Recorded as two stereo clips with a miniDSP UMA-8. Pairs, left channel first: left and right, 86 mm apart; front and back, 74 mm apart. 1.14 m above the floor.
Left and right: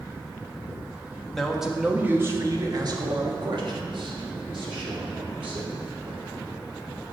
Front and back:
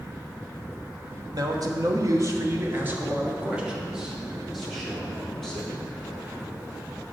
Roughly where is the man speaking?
Behind.